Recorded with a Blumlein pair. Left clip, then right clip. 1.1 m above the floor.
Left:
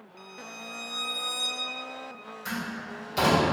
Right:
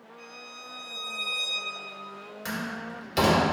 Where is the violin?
50° left, 0.7 m.